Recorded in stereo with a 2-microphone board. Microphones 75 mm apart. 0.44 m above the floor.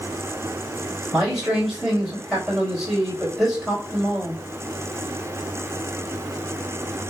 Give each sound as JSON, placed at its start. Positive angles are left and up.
{"t": 1.1, "sound": "a man speaking", "side_deg": 0, "distance_m": 2.5}